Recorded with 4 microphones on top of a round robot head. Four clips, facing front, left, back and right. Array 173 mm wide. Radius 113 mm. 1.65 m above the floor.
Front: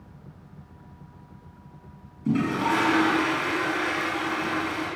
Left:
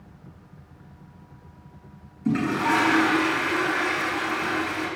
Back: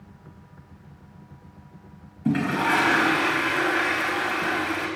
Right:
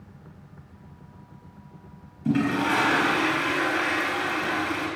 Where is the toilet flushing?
165° right, 3.5 m.